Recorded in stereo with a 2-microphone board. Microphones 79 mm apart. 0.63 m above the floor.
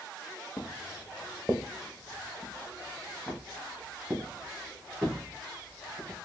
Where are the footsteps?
35° left (ahead or behind), 0.7 m; by 6.2 s 10° right (ahead or behind), 3.5 m.